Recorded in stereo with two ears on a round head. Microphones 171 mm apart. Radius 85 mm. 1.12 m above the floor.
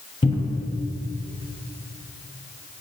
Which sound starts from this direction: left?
A cupboard door, at 0.2 s.